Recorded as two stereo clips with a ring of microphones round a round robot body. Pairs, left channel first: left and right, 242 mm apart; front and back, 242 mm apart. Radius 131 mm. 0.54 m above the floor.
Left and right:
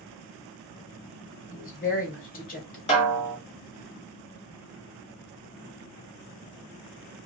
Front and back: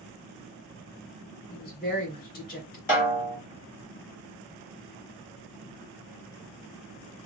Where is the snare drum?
40° left, 1.6 m.